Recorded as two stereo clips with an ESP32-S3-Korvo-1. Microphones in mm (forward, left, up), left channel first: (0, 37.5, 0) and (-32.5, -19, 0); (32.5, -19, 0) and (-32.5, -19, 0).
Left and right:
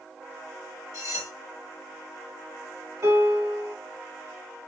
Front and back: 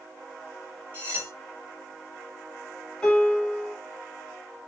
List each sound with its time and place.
0.9 s cutlery clinking: 120° right, 1.7 m
3.0 s a piano: 80° right, 1.8 m